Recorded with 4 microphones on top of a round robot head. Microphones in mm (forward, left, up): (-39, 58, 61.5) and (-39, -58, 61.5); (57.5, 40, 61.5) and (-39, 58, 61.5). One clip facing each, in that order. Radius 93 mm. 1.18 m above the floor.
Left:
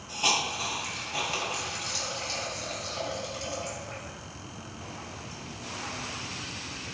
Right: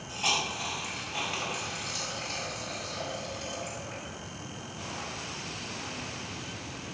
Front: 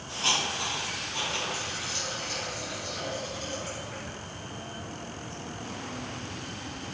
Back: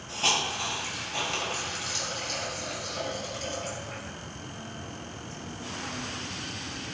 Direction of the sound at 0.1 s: 150° left.